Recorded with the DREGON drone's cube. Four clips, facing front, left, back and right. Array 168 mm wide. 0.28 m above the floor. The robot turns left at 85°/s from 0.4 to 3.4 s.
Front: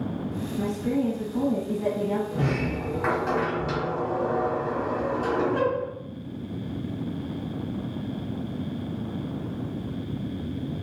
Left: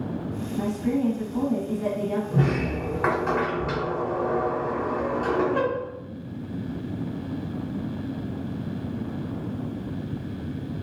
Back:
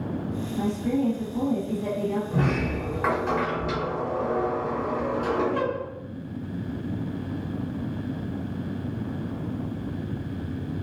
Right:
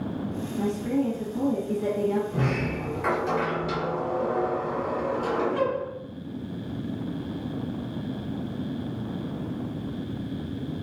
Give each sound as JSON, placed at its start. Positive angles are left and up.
{"t": 0.6, "sound": "a woman speaking", "azimuth_deg": 155, "distance_m": 1.2}
{"t": 2.3, "sound": "a sliding door", "azimuth_deg": 160, "distance_m": 1.1}